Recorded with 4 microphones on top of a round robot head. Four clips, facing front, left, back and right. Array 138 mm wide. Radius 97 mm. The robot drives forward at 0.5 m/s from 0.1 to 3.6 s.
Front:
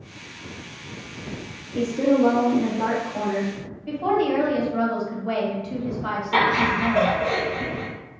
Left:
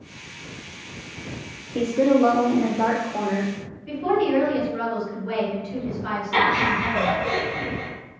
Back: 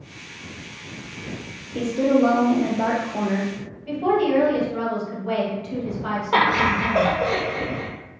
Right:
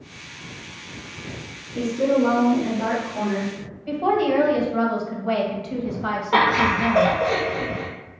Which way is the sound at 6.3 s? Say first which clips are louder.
Right 3 dB, back 1 dB; 135° right.